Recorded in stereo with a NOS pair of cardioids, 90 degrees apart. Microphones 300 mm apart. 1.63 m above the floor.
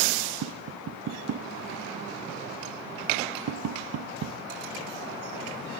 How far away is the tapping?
About 1.0 m.